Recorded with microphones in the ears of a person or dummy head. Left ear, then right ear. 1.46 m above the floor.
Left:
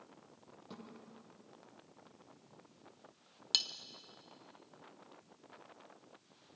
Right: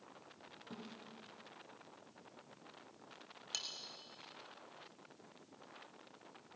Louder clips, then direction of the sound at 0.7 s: Even; 20° left (ahead or behind).